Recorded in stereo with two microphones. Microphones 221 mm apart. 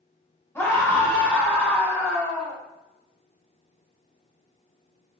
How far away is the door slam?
I don't hear a door slam.